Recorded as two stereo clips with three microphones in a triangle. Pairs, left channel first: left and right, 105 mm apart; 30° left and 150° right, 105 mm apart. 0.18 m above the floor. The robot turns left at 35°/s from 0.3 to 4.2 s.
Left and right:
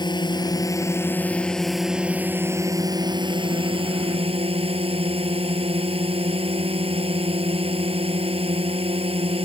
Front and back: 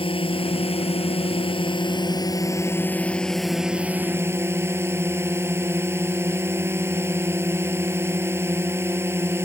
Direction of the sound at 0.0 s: 50° left.